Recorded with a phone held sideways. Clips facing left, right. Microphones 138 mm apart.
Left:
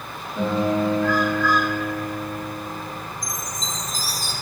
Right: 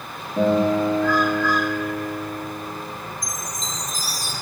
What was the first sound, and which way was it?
A guitar, 50° right (ahead or behind).